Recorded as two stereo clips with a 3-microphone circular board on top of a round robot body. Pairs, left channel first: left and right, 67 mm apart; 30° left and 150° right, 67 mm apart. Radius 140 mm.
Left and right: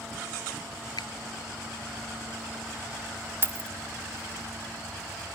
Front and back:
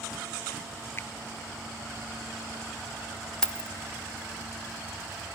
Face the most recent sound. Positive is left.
turn(degrees=-45)